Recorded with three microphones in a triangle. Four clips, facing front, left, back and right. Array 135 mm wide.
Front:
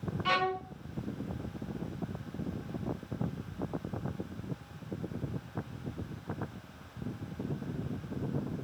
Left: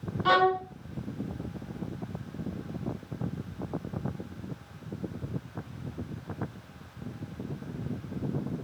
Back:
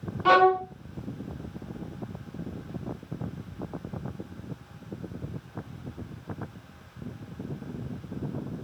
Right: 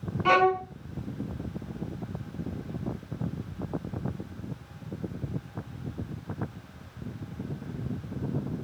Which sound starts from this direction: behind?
A violin, at 0.2 s.